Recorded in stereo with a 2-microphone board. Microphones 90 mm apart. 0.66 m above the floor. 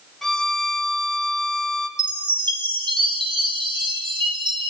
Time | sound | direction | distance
0.2 | a violin | 5° left (ahead or behind) | 1.5 m
2.0 | a chime | 60° right (ahead or behind) | 3 m